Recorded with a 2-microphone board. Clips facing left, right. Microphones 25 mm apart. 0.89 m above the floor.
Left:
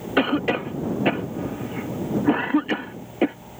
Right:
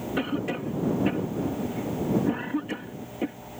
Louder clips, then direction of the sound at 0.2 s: Left 9 dB; 45° left (ahead or behind).